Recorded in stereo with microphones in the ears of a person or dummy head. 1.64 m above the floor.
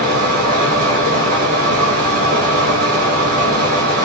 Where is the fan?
55° right (ahead or behind), 1.6 m.